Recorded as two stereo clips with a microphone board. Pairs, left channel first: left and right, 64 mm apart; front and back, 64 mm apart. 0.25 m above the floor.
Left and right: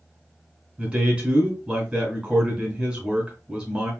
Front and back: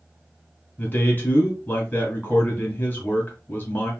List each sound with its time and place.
0.8 s a man speaking: 30° right, 1.8 m